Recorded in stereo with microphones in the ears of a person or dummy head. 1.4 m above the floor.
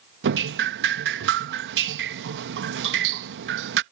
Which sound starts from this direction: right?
Dripping, at 0.2 s.